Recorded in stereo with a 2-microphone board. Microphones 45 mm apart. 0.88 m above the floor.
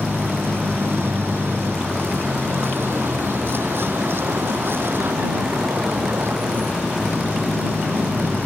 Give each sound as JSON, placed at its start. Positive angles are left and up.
{"t": 0.0, "sound": "a vehicle", "side_deg": -65}